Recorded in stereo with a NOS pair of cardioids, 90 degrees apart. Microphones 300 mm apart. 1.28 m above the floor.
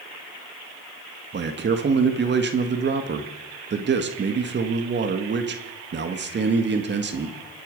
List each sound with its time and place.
1.3 s a man speaking: 40° right, 1.8 m